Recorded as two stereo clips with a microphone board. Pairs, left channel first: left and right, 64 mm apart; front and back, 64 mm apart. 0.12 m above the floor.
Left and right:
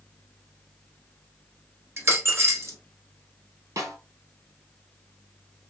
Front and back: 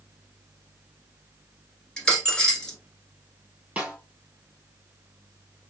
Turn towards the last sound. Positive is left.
turn(degrees=-110)